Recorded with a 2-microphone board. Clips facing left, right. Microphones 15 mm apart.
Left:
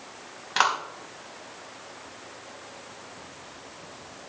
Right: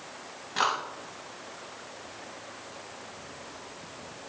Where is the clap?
45° left (ahead or behind), 4 m.